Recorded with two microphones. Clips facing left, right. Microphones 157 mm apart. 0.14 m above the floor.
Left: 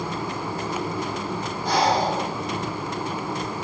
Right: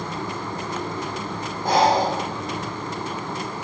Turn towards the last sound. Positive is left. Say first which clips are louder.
# right 3 dB
turn(degrees=-50)  # may be behind; listen again after turning